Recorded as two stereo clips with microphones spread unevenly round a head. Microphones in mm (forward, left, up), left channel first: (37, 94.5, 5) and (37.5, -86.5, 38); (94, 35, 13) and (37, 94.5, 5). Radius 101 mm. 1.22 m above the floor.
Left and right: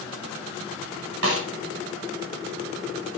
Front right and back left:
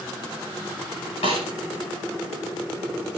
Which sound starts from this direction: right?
A snare drum, at 1.2 s.